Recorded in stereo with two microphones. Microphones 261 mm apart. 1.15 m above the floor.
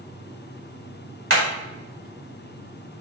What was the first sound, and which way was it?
Hammering, 55° right (ahead or behind).